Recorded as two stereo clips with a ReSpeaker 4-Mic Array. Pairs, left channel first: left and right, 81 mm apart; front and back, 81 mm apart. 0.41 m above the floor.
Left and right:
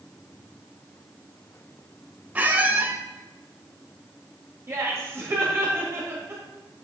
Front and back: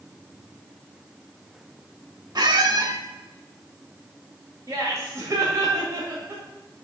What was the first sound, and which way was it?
A squeak, 155° right.